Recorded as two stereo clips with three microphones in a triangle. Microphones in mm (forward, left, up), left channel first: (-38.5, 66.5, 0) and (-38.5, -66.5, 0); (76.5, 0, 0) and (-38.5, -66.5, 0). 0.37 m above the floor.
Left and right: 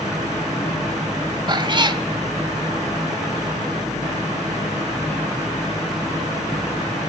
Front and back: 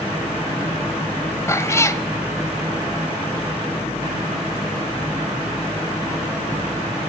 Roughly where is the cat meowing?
Ahead right.